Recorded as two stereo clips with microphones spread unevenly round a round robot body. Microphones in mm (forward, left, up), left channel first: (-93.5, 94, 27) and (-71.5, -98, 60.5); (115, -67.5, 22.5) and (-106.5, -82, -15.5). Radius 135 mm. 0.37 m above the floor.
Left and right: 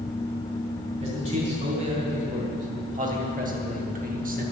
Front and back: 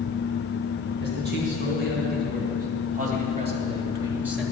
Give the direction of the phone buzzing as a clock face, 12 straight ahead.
No phone buzzing in this recording.